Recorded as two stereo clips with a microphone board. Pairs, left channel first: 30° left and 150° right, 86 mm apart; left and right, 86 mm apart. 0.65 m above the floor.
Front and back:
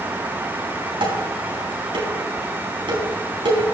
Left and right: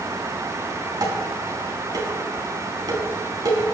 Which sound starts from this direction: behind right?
Dishes clattering, at 1.0 s.